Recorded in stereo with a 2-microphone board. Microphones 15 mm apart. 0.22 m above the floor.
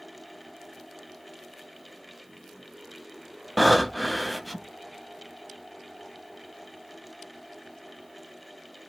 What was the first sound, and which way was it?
Breathing, centre (ahead or behind).